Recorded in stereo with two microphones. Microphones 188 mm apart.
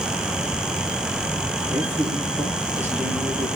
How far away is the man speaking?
About 4.5 m.